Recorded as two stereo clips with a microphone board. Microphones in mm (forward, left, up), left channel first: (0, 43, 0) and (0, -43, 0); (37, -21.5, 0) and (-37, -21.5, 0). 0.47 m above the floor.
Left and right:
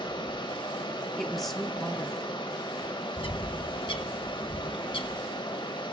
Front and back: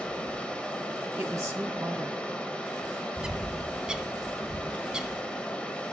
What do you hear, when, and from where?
0.0 s running water: 75° left, 1.0 m
1.2 s a woman speaking: 175° left, 0.8 m
3.2 s a bird: 100° left, 0.6 m